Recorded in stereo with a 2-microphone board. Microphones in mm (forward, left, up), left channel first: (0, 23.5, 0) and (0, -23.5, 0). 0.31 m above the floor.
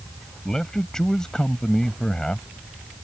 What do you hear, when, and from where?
0.5 s a man speaking: 15° left (ahead or behind)